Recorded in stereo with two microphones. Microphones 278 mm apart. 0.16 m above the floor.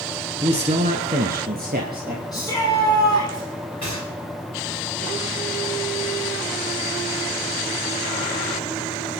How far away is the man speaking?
About 1.0 m.